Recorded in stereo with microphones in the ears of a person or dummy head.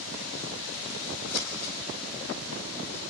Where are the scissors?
65° left (ahead or behind), 4 m.